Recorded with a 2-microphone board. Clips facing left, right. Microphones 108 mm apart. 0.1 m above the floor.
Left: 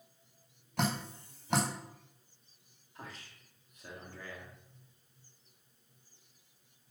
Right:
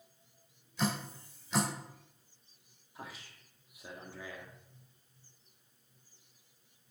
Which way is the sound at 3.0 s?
10° right (ahead or behind).